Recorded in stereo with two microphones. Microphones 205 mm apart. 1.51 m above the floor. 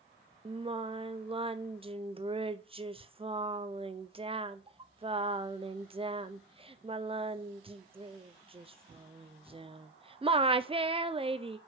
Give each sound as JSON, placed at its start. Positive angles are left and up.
{"t": 0.5, "sound": "singing", "side_deg": -25, "distance_m": 0.5}